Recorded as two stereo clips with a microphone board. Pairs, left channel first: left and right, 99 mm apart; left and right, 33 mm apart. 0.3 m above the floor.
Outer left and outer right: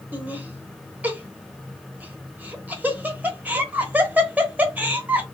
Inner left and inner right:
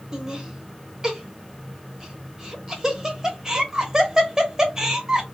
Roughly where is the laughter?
Centre.